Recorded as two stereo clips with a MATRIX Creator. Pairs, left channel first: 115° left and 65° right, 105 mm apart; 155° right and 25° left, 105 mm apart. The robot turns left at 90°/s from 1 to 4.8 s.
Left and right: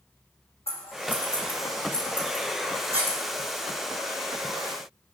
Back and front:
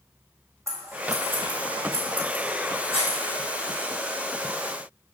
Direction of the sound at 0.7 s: 85° left.